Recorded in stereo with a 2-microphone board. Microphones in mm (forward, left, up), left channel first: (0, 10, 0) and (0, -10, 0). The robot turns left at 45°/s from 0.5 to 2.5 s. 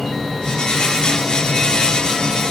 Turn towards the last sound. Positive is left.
No sound to turn to.